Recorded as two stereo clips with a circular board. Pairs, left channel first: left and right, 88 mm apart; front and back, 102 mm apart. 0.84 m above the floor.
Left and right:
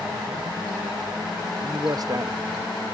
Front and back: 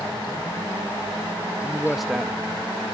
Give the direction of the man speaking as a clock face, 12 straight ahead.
3 o'clock.